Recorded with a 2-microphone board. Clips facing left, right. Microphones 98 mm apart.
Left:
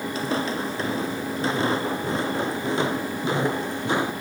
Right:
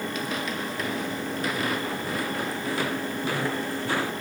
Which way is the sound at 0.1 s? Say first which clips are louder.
Left 4 dB; 30° left (ahead or behind).